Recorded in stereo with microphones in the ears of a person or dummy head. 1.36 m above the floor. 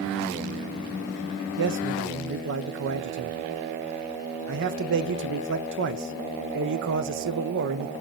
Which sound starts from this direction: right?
A man speaking, at 1.6 s.